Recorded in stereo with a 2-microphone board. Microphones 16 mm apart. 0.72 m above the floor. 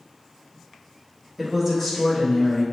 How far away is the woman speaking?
About 1.0 m.